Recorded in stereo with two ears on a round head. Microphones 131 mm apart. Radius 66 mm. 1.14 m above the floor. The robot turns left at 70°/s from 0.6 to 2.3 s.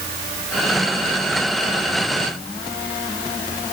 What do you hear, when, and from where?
Only background noise.